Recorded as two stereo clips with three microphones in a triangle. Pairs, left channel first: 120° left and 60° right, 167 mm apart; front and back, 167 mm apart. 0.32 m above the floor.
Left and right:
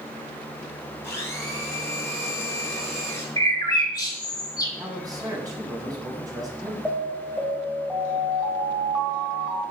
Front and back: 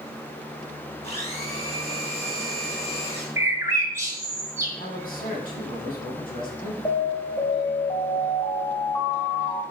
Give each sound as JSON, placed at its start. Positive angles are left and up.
{"t": 1.0, "sound": "a blender", "azimuth_deg": 45, "distance_m": 3.0}
{"t": 3.4, "sound": "a bird", "azimuth_deg": 135, "distance_m": 1.4}
{"t": 4.8, "sound": "a man speaking", "azimuth_deg": 5, "distance_m": 2.5}
{"t": 6.8, "sound": "an alarm", "azimuth_deg": 20, "distance_m": 1.6}